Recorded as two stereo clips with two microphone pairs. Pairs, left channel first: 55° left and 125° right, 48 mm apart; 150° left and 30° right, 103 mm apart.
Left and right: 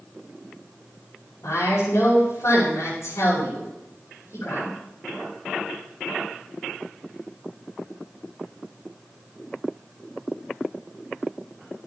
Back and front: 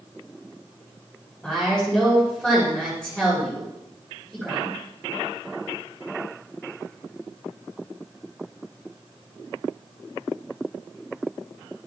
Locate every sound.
1.4 s a woman speaking: 60° left, 8 m